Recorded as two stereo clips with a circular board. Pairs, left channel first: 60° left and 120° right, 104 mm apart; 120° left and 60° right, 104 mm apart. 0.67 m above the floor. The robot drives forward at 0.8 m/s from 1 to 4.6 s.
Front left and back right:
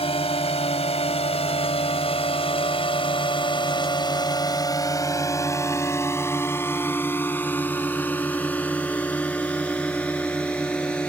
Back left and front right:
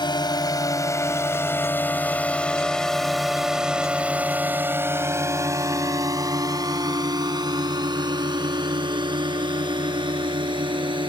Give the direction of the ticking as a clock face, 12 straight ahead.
No ticking in this recording.